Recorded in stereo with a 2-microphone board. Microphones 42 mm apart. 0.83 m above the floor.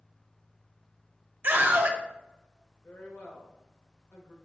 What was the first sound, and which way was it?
A scream, 50° right (ahead or behind).